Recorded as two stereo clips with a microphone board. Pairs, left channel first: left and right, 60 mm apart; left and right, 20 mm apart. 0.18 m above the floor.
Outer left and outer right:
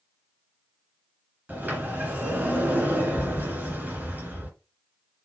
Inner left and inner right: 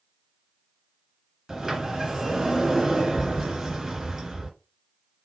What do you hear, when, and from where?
1.5 s a sliding door: 30° right (ahead or behind), 2 m